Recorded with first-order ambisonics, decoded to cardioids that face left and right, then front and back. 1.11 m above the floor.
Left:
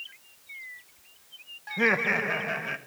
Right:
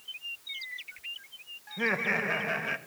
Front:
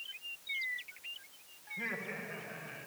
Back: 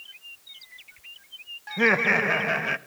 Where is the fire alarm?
No fire alarm in this recording.